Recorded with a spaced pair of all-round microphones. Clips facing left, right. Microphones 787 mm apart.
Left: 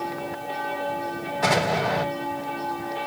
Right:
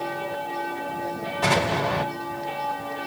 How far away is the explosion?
About 3 m.